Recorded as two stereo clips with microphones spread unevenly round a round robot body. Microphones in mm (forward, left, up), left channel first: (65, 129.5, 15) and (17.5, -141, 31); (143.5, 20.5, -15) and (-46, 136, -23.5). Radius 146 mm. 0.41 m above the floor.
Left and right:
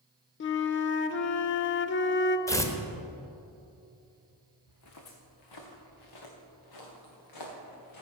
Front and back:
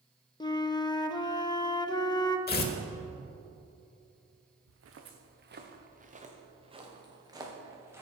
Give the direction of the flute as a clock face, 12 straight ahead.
11 o'clock.